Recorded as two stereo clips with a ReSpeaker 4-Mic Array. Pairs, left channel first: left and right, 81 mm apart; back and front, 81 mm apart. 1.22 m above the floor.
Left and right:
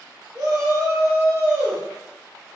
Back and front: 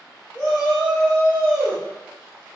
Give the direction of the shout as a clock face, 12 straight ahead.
4 o'clock.